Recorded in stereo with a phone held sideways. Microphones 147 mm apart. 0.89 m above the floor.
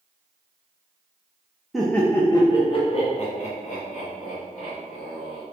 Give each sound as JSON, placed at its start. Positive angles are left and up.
{"t": 1.7, "sound": "laughter", "side_deg": 0, "distance_m": 0.7}